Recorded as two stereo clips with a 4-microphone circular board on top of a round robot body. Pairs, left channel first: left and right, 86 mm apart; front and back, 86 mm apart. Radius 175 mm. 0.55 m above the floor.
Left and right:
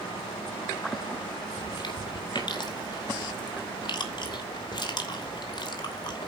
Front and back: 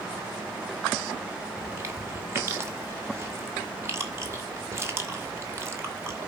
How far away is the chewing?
About 3 m.